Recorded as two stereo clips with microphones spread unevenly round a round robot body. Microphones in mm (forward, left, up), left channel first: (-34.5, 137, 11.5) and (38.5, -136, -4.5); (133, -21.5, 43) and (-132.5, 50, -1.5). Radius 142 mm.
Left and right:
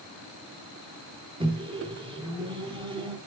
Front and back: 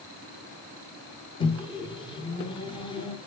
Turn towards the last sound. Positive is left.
turn(degrees=-85)